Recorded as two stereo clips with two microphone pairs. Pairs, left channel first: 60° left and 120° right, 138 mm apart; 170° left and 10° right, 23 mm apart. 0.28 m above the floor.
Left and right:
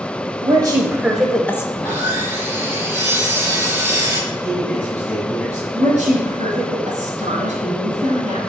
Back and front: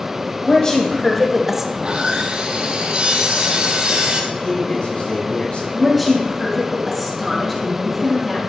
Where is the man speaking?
145° left, 4.5 m.